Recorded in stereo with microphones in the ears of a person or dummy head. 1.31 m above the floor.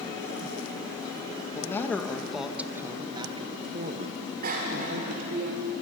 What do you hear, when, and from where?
1.5 s a man speaking: 15° left (ahead or behind), 1.4 m; by 5.4 s 70° right (ahead or behind), 1.8 m
4.4 s a bicycle bell: 50° right (ahead or behind), 3 m